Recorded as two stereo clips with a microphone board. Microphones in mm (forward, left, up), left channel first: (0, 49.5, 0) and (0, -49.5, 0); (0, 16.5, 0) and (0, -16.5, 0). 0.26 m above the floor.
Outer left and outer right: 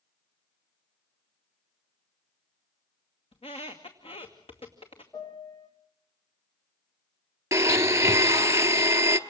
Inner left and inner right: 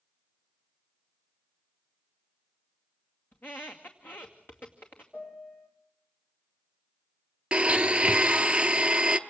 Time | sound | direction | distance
3.3 | a squeak | 80° left | 2.5 m
5.1 | a piano | 30° left (ahead or behind) | 3.5 m
7.5 | a blender | 35° right (ahead or behind) | 0.8 m